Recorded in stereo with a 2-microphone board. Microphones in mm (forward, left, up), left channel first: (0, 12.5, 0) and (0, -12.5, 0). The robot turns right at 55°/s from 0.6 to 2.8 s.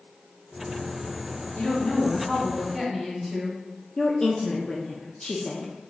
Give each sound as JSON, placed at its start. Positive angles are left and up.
{"t": 1.6, "sound": "a woman speaking", "azimuth_deg": 120, "distance_m": 1.5}
{"t": 4.0, "sound": "a woman speaking", "side_deg": 20, "distance_m": 0.5}